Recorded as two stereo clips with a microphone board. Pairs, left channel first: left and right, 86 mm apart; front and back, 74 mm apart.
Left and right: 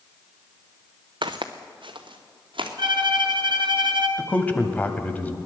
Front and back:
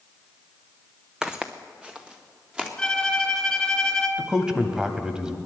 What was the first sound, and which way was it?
Footsteps, 100° right.